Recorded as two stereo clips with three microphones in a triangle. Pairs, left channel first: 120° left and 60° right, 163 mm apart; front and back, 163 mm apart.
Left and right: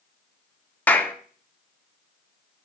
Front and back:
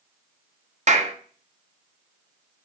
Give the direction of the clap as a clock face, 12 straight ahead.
5 o'clock.